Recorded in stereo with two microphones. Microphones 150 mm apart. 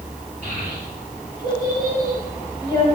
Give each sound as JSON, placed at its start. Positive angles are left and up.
{"t": 0.4, "sound": "a child speaking", "side_deg": -50, "distance_m": 7.5}